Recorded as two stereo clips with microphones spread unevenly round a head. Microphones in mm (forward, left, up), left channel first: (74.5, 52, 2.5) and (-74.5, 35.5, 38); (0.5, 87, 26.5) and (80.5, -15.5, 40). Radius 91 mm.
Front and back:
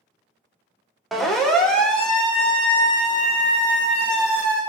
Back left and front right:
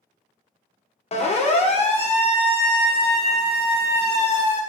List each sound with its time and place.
1.1 s a siren: 95° left, 2.5 m; by 4.6 s 90° left, 7 m